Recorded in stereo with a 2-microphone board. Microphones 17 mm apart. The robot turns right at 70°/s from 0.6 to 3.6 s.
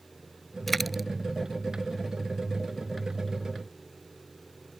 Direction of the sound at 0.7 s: 10° left (ahead or behind).